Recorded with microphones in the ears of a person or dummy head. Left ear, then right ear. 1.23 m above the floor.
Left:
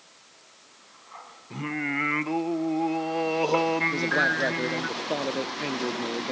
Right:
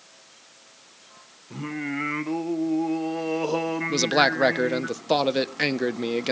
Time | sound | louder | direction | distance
1.5 | singing | left 2 dB | 25° left (ahead or behind) | 0.8 m
3.9 | a man speaking | right 3 dB | 45° right (ahead or behind) | 0.9 m